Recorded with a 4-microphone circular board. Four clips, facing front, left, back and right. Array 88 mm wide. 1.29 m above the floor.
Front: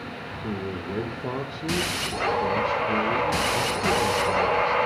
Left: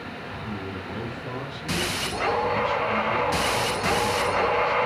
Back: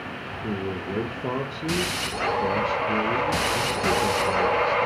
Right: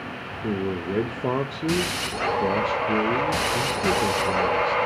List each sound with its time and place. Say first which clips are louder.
0.4 s a man speaking: right 10 dB, back 2 dB; 95° right, 1.6 m